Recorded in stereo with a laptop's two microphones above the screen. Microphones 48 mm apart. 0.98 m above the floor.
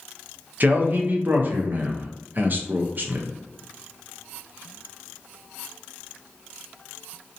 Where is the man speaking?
40° right (ahead or behind), 0.5 m.